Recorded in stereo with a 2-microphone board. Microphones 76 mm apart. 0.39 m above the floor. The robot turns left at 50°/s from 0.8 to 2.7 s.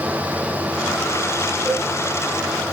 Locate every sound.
1.6 s a cowbell: centre (ahead or behind), 4 m; by 1.9 s 10° left (ahead or behind), 4 m